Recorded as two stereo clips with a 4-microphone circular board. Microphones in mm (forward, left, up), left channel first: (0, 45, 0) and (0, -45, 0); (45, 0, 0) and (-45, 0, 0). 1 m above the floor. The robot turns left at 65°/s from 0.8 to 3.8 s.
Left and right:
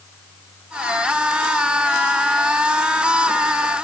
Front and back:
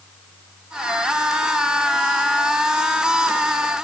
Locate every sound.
Only background noise.